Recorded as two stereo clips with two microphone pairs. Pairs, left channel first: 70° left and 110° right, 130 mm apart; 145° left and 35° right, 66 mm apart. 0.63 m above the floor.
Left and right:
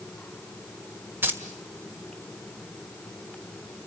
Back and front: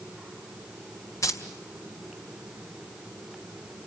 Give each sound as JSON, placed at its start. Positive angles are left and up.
{"t": 1.2, "sound": "keys jangling", "azimuth_deg": 180, "distance_m": 1.8}